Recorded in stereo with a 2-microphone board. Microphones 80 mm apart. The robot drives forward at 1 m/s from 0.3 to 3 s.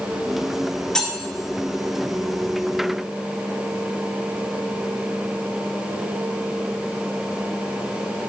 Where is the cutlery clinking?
10° left (ahead or behind), 4 m.